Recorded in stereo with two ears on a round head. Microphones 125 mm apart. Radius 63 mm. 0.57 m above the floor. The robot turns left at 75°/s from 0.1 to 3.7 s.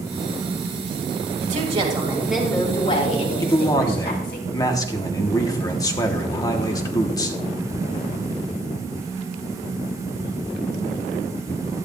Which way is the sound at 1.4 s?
110° right.